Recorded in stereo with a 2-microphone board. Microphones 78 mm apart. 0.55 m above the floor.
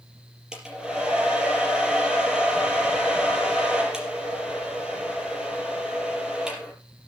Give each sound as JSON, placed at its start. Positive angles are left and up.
{"t": 0.5, "sound": "a hair dryer", "side_deg": -10, "distance_m": 5.0}